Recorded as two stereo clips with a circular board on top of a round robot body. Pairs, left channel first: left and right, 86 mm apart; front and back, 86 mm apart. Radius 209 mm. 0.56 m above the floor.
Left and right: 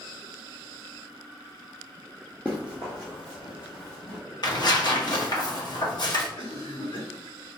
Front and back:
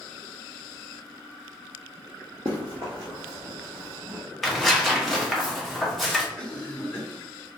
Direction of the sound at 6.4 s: 80° left.